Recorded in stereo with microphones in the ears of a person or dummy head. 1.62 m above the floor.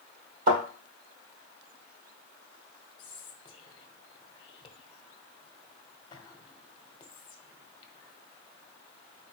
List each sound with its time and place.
0.5 s a thud: 55° right (ahead or behind), 3 m
3.0 s whispering: 30° left (ahead or behind), 1.2 m